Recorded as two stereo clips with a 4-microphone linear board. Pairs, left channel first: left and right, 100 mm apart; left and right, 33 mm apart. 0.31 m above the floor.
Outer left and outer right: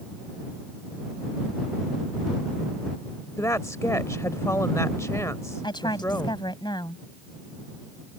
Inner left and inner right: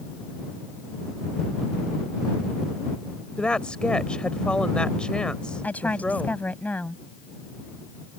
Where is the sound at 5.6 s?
50° left (ahead or behind).